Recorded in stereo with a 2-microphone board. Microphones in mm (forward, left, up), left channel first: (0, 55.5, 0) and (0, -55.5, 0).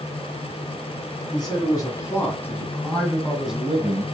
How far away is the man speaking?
About 2 m.